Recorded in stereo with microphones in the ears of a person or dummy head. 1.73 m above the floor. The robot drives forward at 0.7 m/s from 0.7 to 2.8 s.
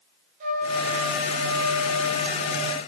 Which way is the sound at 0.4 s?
40° right (ahead or behind).